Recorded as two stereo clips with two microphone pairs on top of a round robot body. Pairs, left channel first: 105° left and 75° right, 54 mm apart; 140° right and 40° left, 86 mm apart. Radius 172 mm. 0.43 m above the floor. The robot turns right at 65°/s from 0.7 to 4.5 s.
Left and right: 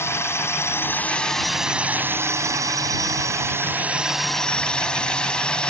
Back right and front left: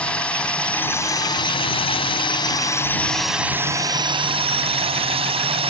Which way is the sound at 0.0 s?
145° left.